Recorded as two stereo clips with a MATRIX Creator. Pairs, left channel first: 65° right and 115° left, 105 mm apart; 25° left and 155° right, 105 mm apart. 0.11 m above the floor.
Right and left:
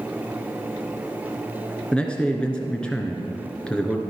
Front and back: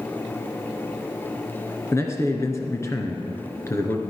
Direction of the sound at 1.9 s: Straight ahead.